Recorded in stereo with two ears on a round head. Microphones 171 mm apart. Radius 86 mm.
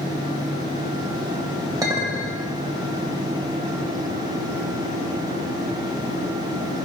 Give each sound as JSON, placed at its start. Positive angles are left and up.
{"t": 1.8, "sound": "a clink", "side_deg": -20, "distance_m": 1.5}